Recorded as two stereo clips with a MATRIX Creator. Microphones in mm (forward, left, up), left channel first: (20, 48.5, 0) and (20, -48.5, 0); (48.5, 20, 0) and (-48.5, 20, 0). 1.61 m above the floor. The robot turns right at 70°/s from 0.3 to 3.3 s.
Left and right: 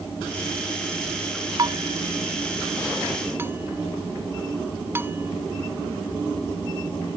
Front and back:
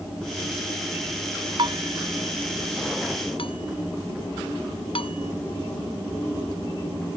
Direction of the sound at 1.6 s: 140° right.